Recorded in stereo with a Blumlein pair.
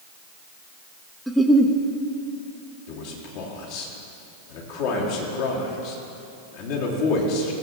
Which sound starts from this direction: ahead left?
A man speaking, at 2.9 s.